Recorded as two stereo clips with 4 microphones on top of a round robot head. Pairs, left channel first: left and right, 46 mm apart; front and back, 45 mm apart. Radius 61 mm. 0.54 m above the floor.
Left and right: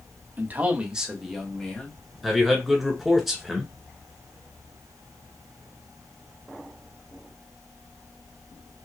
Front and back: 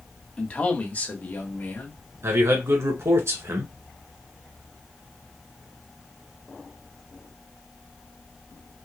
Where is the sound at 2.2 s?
Straight behind, 1.9 m.